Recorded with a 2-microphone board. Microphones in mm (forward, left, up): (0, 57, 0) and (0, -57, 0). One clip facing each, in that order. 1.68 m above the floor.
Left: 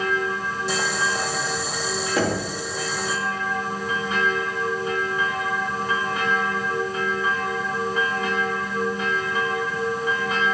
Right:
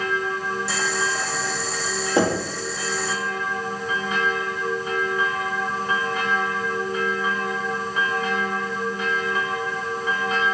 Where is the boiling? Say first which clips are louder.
Left 1 dB; 20° left (ahead or behind), 2.5 m.